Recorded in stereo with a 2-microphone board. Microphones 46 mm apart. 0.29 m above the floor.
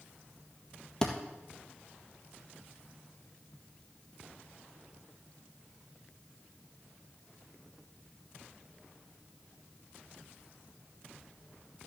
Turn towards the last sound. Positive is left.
turn(degrees=15)  # may be behind; listen again after turning